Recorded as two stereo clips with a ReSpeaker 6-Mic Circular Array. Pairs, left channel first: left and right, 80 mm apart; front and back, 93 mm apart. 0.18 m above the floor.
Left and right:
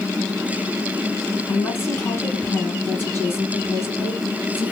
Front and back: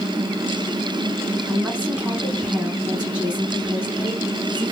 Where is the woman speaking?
115° left, 1.5 m.